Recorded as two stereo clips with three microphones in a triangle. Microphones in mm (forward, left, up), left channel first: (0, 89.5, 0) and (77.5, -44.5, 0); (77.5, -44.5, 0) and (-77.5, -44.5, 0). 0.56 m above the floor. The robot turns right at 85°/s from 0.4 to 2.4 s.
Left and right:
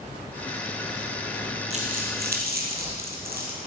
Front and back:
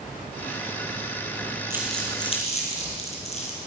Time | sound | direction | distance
1.7 | crumpling | 105° right | 3 m